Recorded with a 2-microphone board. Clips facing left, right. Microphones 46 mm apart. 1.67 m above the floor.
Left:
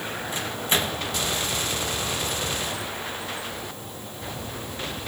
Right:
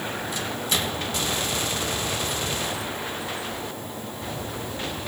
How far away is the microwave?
About 1.5 m.